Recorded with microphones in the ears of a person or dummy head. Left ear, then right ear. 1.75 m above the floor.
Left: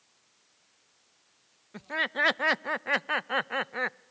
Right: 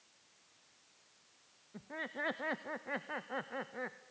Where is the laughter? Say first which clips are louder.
Left 13 dB; 55° left (ahead or behind), 0.5 m.